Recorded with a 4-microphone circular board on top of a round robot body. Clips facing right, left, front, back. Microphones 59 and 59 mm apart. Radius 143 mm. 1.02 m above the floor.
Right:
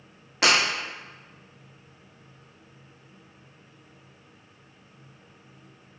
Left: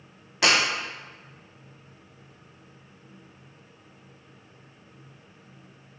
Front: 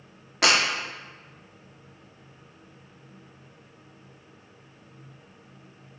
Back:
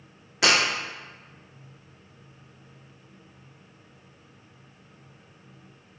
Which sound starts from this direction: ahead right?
Breaking glass, at 0.4 s.